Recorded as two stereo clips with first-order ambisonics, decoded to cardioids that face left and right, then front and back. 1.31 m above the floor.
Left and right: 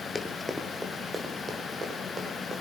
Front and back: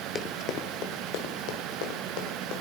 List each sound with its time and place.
0.1 s running footsteps: 35° left, 1.3 m; by 2.6 s 20° right, 4 m